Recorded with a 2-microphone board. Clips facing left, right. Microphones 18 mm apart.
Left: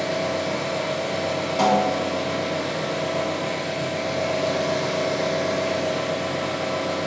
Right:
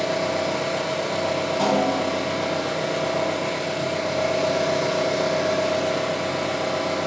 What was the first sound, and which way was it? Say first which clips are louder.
An engine running: right 1 dB; 65° right (ahead or behind).